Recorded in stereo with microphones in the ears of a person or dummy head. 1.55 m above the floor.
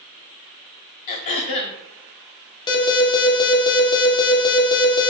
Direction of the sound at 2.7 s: 25° left (ahead or behind).